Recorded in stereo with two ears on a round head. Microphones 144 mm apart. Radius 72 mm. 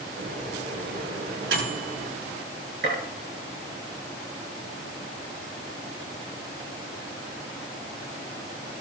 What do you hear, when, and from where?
0.2 s a microwave: 85° right, 9.5 m
2.8 s a gunshot: 60° right (ahead or behind), 9.5 m